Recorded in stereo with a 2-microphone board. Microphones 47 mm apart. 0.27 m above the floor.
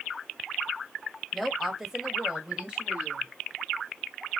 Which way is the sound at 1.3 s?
5° left (ahead or behind).